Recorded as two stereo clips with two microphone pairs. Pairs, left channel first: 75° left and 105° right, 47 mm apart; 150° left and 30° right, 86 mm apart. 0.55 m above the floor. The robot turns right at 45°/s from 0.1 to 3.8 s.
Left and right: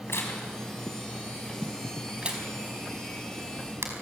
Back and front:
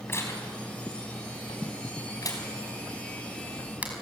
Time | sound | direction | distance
0.1 | tearing paper | 90° left | 4.5 m